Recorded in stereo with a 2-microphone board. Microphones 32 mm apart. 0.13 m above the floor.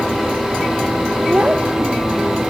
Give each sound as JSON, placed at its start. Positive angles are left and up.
{"t": 1.3, "sound": "a child speaking", "side_deg": -40}